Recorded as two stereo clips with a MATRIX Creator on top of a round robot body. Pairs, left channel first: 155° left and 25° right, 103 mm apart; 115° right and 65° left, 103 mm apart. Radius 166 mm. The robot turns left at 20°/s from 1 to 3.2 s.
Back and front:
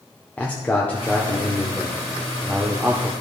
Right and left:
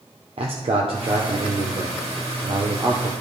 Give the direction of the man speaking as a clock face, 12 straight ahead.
9 o'clock.